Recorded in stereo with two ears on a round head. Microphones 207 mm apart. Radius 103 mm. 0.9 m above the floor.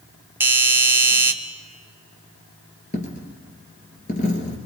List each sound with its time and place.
0.4 s a doorbell: 10° right (ahead or behind), 1.1 m
2.9 s a dropped coin: 35° left (ahead or behind), 3 m